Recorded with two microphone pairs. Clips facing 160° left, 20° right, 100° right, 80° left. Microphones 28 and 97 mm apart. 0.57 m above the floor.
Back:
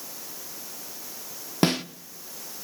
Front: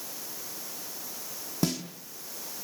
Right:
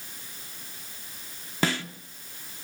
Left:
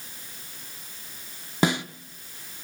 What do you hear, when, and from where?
1.6 s a snare drum: 145° left, 0.7 m